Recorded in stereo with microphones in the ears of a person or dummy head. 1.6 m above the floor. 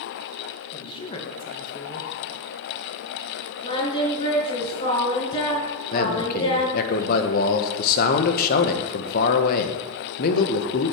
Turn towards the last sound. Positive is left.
turn(degrees=55)  # may be behind; listen again after turning